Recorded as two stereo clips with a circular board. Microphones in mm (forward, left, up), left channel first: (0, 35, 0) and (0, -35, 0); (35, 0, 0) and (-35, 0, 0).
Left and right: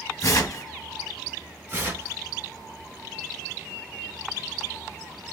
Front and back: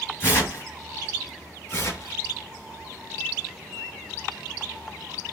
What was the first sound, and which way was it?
Tearing paper, 45° left.